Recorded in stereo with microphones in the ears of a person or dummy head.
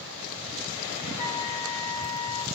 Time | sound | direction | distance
1.2 | a flute | 30° left (ahead or behind) | 2.5 m